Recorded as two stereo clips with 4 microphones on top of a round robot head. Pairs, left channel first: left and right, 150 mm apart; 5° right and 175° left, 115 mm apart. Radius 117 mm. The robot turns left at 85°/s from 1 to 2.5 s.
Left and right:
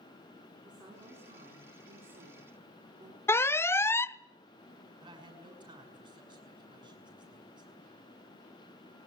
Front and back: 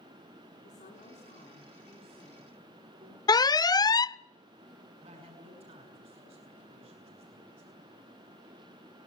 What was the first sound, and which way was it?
A woman speaking, 25° right.